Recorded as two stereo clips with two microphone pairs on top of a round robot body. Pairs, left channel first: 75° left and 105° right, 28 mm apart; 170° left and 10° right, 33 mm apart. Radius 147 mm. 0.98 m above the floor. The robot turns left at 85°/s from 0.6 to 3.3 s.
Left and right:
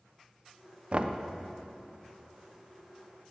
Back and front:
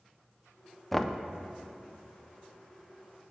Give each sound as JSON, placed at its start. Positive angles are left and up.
{"t": 0.9, "sound": "knocking", "azimuth_deg": -125, "distance_m": 0.6}